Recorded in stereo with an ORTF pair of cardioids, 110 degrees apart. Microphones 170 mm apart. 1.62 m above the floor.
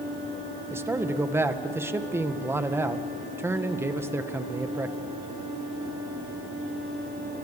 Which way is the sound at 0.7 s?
15° right.